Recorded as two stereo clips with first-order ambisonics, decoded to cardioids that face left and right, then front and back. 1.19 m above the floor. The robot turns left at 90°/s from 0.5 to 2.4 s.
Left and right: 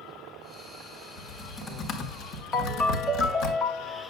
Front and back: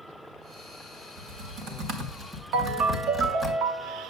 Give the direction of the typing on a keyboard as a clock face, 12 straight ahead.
5 o'clock.